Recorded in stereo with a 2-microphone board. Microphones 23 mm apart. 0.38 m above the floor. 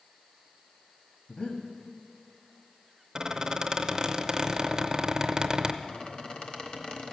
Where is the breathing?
55° left (ahead or behind), 1.5 m.